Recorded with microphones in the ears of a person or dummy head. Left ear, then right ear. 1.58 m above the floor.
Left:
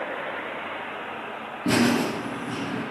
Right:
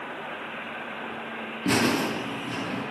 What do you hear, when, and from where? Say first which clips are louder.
1.6 s laughter: left 1 dB; 10° right (ahead or behind), 0.5 m